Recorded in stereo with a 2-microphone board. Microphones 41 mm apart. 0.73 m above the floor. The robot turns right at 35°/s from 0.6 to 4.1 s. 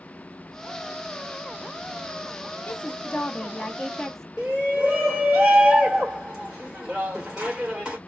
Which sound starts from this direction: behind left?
A woman speaking, at 2.7 s.